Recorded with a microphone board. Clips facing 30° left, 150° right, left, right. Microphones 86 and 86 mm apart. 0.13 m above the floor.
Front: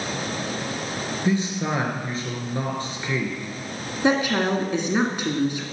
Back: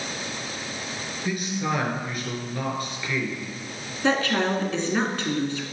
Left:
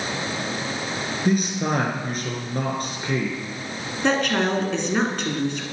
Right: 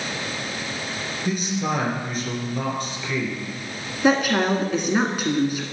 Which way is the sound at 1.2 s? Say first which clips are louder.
Front 3 dB, left 3 dB; 80° left.